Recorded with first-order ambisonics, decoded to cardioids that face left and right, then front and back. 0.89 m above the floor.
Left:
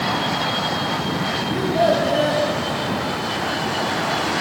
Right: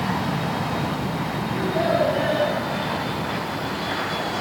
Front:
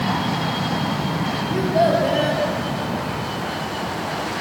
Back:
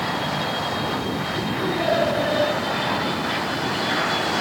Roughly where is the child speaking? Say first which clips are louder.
Left 4 dB, front 5 dB; ahead.